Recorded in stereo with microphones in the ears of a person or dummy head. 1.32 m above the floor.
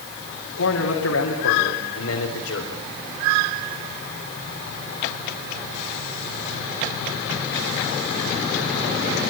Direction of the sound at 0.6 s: 80° left.